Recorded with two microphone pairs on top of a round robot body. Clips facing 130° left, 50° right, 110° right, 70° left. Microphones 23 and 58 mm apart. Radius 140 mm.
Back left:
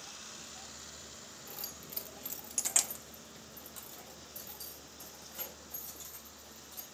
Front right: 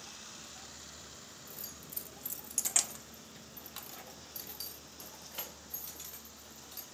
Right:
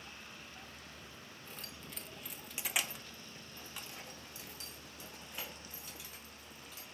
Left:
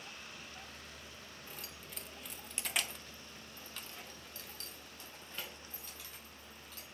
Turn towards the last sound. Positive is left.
turn(degrees=-35)